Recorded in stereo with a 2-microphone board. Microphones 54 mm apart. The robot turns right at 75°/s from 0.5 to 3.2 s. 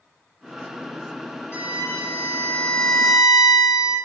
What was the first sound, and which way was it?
A violin, 75° left.